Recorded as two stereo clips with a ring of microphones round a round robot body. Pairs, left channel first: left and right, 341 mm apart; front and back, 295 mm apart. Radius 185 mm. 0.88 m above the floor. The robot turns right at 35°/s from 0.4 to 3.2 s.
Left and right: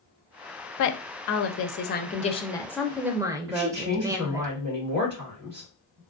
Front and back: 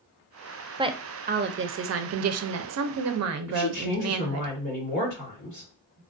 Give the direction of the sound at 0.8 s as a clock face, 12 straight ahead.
8 o'clock.